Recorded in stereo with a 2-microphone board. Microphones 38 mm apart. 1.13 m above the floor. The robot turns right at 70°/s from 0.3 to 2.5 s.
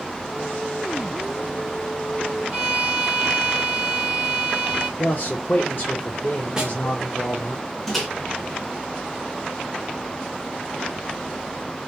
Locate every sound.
2.5 s a violin: 25° right (ahead or behind), 1.1 m
5.0 s a man speaking: 40° left (ahead or behind), 0.5 m
6.6 s a snare drum: 15° right (ahead or behind), 0.7 m
7.9 s a microwave: 5° left (ahead or behind), 0.8 m